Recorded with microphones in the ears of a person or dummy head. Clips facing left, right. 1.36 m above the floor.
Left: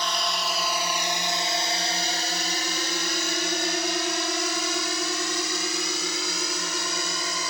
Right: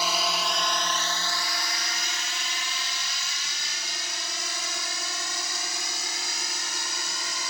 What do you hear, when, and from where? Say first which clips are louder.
0.0 s a drone: right 1 dB; 10° right (ahead or behind); by 7.5 s 75° left (ahead or behind)